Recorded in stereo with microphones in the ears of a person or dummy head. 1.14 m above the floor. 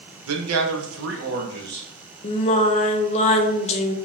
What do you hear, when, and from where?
0.3 s a man speaking: 80° right, 0.8 m; by 1.9 s 50° right (ahead or behind), 1.2 m
2.2 s singing: 35° left (ahead or behind), 0.6 m